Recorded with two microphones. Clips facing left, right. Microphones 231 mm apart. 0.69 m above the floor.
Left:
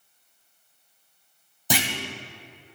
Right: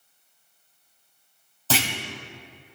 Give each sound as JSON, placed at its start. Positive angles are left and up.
{"t": 1.7, "sound": "a clunk", "side_deg": 15, "distance_m": 1.4}